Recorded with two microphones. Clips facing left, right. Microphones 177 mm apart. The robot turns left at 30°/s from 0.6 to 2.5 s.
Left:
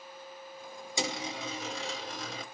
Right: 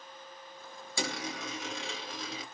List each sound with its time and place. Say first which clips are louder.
1.0 s a dropped coin: left 1 dB; 155° left, 1.2 m; by 2.4 s 110° left, 1.2 m